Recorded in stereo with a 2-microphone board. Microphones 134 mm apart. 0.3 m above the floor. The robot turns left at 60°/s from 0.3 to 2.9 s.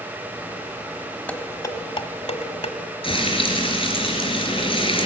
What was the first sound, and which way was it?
Dishes clattering, 10° left (ahead or behind).